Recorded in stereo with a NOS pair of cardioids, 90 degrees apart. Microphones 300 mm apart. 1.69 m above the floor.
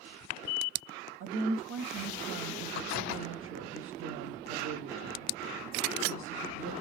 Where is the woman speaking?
50° right, 0.9 m.